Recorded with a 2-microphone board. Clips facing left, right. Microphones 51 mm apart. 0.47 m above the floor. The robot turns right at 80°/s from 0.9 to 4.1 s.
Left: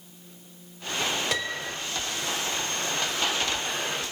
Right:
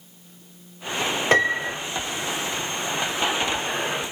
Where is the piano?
70° right, 1.2 m; by 1.8 s 35° right, 1.2 m.